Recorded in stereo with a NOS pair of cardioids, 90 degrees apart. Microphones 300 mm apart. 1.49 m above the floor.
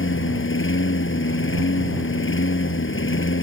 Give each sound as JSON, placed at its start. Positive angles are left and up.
{"t": 0.0, "sound": "a lawn mower", "azimuth_deg": 40}